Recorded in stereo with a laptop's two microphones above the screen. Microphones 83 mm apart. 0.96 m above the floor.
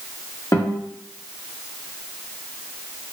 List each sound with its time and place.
0.5 s a guitar: 35° left (ahead or behind), 1.5 m